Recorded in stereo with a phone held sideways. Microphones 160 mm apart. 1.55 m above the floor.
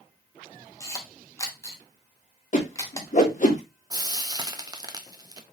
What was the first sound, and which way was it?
A camera shutter, 20° left (ahead or behind).